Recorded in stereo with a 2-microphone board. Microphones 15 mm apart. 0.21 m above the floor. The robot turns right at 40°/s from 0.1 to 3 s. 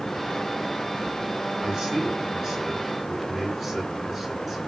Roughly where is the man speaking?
Right.